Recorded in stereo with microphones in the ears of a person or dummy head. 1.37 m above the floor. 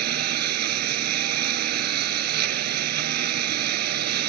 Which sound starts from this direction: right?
A lawn mower, at 0.0 s.